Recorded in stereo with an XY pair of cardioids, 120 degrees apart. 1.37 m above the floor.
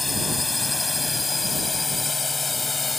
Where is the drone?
15° left; by 3.0 s 25° left.